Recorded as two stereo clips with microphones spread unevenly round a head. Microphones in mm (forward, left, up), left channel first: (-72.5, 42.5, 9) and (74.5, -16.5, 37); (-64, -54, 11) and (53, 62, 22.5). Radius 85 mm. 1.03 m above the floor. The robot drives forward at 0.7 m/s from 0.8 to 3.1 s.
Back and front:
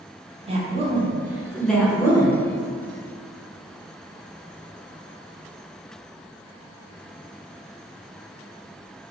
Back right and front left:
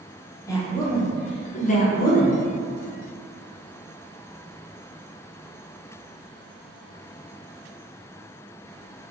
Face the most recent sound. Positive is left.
turn(degrees=-155)